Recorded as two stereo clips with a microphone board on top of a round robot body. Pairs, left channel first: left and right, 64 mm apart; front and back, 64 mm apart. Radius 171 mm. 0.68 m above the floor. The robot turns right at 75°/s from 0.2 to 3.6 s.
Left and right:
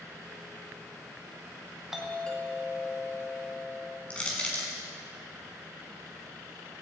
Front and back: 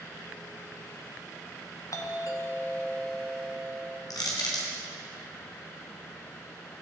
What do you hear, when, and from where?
1.9 s a doorbell: 10° right, 2.0 m; by 4.0 s 115° left, 2.0 m
4.1 s crushing: 15° left, 3 m